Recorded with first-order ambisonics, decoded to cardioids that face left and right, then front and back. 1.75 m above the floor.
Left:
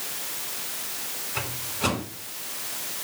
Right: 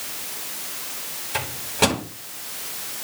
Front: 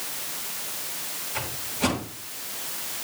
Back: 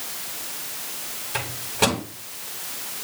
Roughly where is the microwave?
Behind right.